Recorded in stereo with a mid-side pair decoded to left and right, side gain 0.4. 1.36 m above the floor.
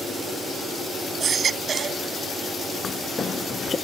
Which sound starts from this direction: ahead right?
A baby crying, at 1.2 s.